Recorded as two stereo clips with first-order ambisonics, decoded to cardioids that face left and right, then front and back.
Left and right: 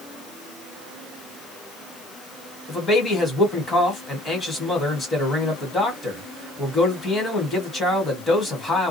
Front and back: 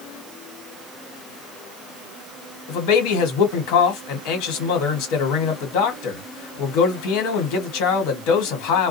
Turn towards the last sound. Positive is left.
turn(degrees=15)